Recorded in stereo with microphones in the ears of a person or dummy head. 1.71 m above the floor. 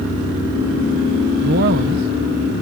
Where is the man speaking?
55° right (ahead or behind).